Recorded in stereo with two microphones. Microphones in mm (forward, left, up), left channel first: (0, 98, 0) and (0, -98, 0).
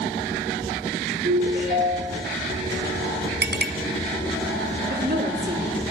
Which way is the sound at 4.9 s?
50° right (ahead or behind).